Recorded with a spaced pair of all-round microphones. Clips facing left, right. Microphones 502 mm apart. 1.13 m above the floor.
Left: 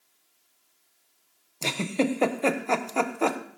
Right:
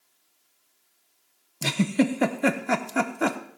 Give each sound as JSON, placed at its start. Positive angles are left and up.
{"t": 1.6, "sound": "a giggle", "side_deg": -35, "distance_m": 0.7}